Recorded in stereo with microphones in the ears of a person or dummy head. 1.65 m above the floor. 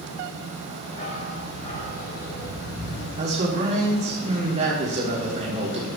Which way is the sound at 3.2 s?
35° right (ahead or behind).